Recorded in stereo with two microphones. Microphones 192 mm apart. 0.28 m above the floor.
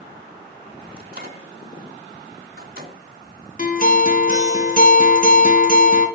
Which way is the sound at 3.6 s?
45° left (ahead or behind).